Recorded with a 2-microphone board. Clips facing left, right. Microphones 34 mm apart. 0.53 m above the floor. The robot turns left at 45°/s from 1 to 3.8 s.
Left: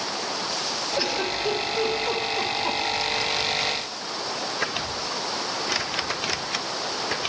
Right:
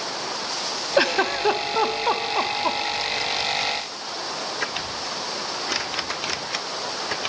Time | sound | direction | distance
1.0 | a giggle | 60° right (ahead or behind) | 0.7 m